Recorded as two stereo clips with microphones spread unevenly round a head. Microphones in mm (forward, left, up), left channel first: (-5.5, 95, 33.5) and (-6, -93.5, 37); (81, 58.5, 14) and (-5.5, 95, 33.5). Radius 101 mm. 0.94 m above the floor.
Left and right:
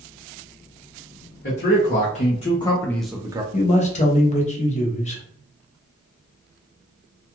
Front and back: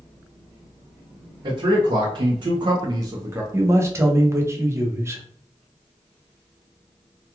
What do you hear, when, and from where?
1.4 s a man speaking: 120° left, 1.0 m; by 3.4 s 135° right, 0.5 m
3.5 s a man speaking: 100° left, 0.8 m